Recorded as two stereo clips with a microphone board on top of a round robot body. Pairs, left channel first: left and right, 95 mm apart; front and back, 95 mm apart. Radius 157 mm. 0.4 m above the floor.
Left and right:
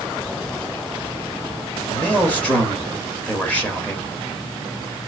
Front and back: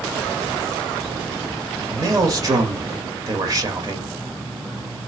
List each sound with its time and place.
1.9 s a man speaking: 155° left, 1.5 m